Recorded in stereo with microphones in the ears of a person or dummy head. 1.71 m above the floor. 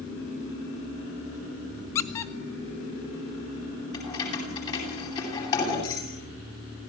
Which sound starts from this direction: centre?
A squeak, at 1.9 s.